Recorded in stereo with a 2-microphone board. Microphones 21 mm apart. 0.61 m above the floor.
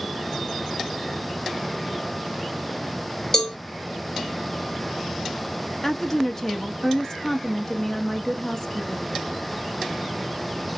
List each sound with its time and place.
3.3 s a cowbell: 20° left (ahead or behind), 1.0 m
5.8 s a woman speaking: 25° left (ahead or behind), 0.6 m